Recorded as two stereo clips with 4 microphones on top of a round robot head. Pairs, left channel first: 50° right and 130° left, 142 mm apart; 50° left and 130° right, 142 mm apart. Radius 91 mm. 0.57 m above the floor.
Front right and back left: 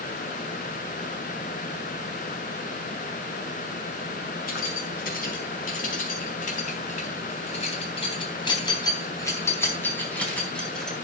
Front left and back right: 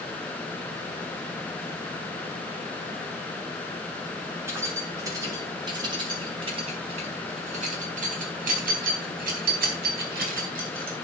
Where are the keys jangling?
60° right, 5 m; by 10.9 s 135° right, 4.5 m.